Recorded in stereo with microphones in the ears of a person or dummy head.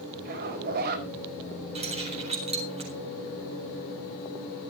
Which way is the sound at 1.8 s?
30° right (ahead or behind).